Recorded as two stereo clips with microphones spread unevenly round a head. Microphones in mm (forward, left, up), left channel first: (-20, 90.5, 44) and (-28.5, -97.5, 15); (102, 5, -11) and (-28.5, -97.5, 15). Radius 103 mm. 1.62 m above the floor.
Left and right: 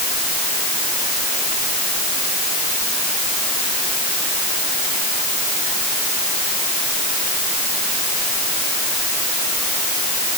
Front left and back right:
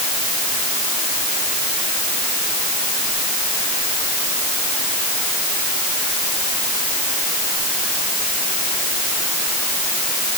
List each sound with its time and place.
Only background noise.